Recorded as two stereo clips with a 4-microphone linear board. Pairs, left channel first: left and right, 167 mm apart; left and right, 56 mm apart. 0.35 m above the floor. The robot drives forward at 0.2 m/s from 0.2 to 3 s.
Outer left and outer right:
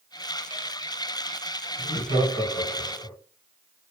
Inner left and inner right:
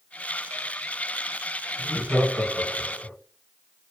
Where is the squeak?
No squeak in this recording.